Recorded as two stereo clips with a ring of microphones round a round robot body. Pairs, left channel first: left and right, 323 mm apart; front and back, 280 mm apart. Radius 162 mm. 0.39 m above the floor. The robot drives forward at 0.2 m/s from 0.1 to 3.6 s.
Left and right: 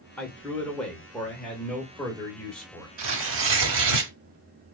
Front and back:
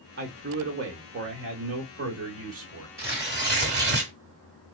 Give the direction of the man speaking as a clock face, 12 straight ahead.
6 o'clock.